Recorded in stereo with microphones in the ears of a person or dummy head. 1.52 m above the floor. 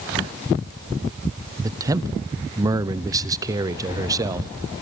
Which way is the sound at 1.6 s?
15° right (ahead or behind).